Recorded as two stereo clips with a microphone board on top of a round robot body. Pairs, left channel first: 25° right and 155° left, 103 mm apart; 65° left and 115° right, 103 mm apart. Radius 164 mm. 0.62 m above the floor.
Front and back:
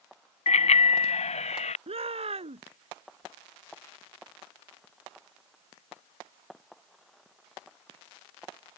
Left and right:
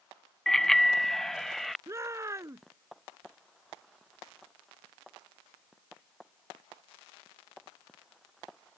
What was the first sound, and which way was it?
A bicycle bell, 20° right.